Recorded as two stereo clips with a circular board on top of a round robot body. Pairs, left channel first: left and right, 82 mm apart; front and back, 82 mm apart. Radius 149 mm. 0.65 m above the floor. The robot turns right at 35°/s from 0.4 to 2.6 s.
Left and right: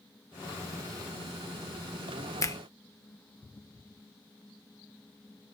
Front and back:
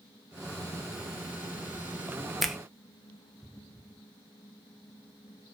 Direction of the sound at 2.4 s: 90° left.